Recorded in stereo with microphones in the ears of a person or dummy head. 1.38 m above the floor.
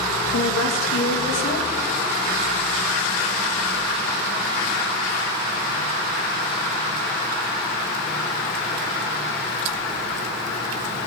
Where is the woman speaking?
75° left (ahead or behind), 2 m.